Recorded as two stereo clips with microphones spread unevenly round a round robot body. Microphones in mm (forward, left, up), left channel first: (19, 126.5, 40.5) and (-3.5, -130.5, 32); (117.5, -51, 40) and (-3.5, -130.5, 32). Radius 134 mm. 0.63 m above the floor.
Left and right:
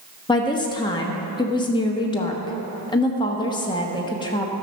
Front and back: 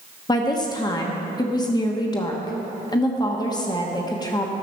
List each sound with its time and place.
0.3 s a woman speaking: 35° left, 1.2 m